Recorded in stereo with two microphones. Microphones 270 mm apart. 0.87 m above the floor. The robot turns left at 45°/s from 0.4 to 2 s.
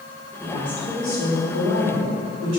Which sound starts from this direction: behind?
A woman speaking, at 0.4 s.